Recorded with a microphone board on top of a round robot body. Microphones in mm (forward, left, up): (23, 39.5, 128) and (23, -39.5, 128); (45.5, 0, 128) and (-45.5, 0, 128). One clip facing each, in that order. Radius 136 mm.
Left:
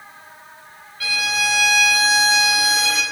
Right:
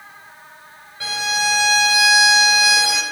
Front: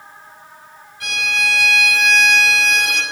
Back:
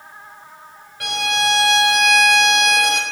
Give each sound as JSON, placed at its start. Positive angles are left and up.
{"t": 1.0, "sound": "a violin", "azimuth_deg": -155, "distance_m": 5.0}